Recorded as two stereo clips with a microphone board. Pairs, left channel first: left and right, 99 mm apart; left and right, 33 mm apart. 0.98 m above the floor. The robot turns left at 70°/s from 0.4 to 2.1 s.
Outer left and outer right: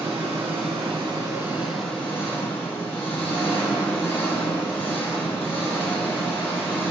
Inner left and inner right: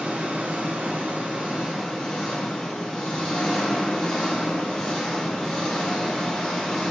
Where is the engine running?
80° right, 3 m; by 6.9 s 160° left, 3 m.